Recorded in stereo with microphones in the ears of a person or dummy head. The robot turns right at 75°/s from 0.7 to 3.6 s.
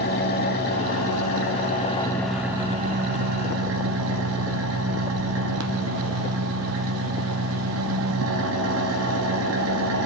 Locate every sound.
0.0 s an engine running: 50° left, 1.1 m; by 10.1 s 90° right, 1.1 m